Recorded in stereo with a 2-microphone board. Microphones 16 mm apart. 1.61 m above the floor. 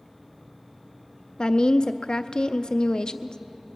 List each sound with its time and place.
1.4 s a woman speaking: 50° left (ahead or behind), 0.5 m